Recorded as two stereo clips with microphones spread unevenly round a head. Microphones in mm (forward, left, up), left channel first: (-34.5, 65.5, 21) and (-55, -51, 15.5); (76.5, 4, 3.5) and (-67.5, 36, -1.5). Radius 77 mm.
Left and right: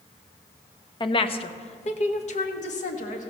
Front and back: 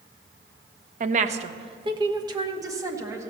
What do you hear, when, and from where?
1.0 s a woman speaking: 130° left, 0.8 m; by 3.3 s 95° left, 1.8 m